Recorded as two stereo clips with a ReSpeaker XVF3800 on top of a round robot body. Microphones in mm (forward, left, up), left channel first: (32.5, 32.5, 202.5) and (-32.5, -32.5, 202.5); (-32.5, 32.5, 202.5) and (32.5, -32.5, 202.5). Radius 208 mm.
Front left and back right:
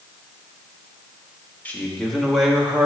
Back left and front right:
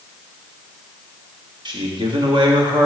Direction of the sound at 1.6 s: 25° right.